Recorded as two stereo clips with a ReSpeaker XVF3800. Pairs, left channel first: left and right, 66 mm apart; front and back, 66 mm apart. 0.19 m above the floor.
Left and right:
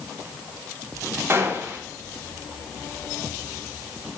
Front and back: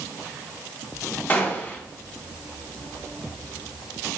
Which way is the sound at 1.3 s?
55° right.